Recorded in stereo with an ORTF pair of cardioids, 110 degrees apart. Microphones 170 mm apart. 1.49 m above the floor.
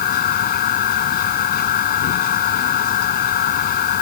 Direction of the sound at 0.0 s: 65° left.